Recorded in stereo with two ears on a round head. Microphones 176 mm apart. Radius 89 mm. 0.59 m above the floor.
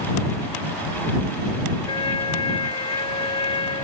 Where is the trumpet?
25° left (ahead or behind).